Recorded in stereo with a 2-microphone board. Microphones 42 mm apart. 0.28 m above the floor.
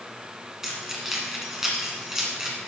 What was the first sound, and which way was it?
Keys jangling, 10° right (ahead or behind).